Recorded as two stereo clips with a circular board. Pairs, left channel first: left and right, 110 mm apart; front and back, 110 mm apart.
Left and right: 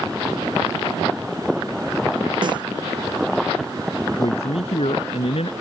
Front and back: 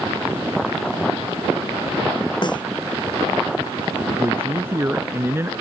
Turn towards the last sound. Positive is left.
turn(degrees=110)